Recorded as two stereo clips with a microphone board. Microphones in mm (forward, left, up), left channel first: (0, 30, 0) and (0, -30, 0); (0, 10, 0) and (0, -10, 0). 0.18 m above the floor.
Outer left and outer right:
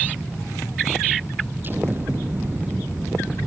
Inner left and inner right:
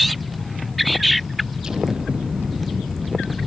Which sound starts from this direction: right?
An explosion, at 1.6 s.